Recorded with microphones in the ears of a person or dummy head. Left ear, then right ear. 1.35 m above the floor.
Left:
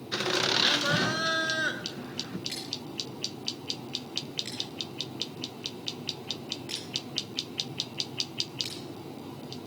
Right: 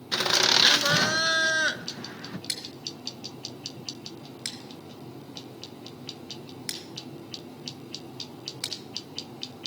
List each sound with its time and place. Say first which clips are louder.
0.1 s laughter: right 5 dB; 25° right (ahead or behind), 0.8 m
2.5 s scissors: right 2 dB; 60° right (ahead or behind), 1.5 m